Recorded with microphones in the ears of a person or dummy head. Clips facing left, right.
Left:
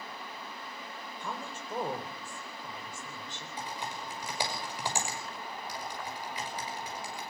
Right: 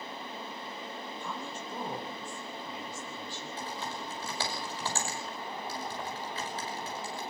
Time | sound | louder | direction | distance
1.2 | a woman speaking | left 2 dB | 50° left (ahead or behind) | 5.5 m
3.6 | typing on a keyboard | left 1 dB | 15° left (ahead or behind) | 5.5 m